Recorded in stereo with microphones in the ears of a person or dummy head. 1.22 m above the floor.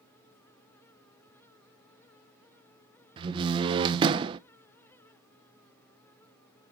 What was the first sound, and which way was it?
A door slam, 25° right (ahead or behind).